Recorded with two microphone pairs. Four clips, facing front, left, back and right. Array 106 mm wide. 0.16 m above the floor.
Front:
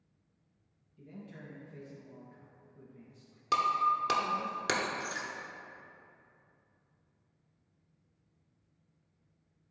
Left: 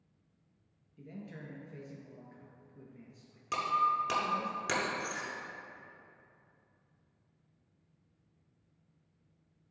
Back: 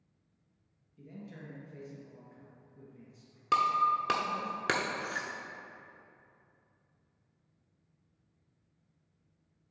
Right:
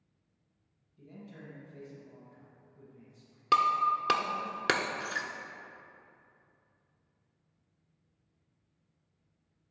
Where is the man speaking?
105° left, 2 m.